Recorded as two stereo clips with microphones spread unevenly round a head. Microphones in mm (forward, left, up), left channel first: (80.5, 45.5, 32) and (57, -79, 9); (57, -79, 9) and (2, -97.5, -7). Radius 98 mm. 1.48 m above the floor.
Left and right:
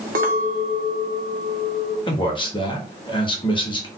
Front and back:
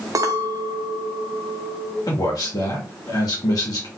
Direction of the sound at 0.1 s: 140° right.